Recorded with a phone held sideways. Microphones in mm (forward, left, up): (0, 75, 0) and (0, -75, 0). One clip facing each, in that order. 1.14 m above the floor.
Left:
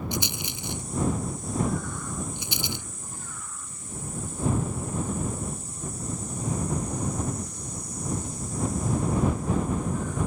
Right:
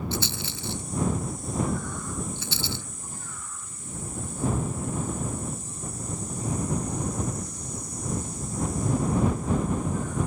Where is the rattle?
15° left (ahead or behind).